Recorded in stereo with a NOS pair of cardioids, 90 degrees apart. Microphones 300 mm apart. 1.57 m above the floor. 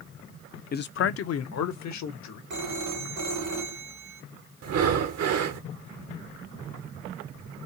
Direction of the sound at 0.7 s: 30° left.